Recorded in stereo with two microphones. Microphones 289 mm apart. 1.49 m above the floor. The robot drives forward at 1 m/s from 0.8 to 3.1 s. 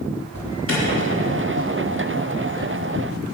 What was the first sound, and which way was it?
An alarm, 50° left (ahead or behind).